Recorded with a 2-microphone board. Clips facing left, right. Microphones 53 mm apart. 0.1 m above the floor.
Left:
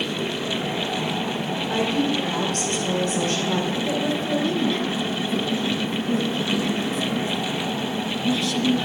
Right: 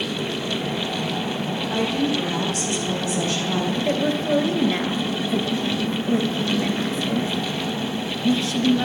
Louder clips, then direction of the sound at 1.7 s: Even; 50° left (ahead or behind).